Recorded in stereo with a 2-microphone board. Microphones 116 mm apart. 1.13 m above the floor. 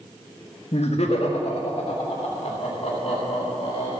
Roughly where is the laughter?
Left.